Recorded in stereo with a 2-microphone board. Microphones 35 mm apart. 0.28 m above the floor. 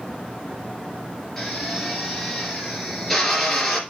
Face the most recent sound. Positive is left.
turn(degrees=10)  # may be behind; listen again after turning